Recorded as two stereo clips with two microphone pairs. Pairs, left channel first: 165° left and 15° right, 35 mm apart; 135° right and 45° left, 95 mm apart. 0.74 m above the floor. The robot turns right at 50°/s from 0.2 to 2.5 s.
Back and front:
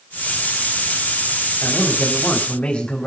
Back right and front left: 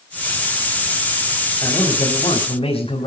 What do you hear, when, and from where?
1.6 s a man speaking: 165° left, 4.5 m; by 3.1 s 150° right, 4.5 m